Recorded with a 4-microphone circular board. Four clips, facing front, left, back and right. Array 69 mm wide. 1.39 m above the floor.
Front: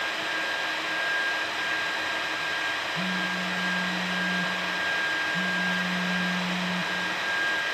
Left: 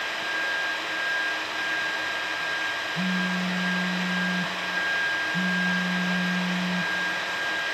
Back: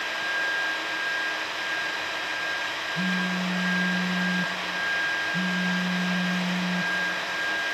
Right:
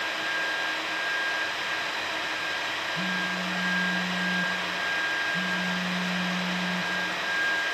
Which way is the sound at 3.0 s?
140° left.